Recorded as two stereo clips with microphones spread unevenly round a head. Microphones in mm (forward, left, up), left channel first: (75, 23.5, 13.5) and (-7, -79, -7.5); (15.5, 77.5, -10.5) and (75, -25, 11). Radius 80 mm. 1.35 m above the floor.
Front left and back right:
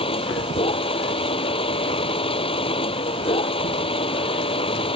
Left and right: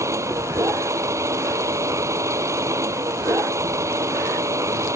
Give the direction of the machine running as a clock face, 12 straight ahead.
12 o'clock.